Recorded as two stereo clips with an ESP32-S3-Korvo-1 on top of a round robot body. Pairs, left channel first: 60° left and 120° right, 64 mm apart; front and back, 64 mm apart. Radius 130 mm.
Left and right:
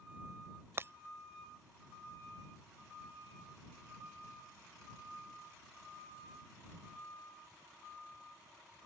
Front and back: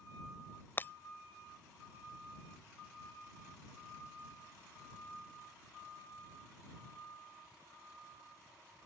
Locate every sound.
0.8 s breaking glass: 65° right